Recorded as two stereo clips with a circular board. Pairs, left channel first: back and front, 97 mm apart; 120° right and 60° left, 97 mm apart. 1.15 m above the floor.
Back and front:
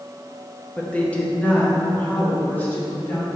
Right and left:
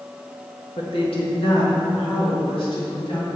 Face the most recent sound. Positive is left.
turn(degrees=-110)